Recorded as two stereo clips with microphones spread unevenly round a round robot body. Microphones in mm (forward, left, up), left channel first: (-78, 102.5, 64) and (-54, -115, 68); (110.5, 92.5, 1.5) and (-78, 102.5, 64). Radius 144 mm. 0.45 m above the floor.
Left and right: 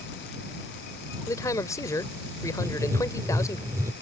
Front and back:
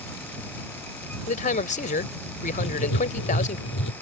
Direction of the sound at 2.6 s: 5° right.